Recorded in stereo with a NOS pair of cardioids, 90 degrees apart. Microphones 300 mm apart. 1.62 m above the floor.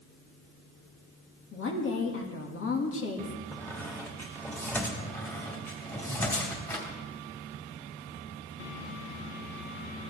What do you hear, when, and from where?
1.5 s a woman speaking: 45° left, 2 m
3.5 s a squeak: 5° left, 2.5 m
5.0 s a squeak: 10° left, 3.5 m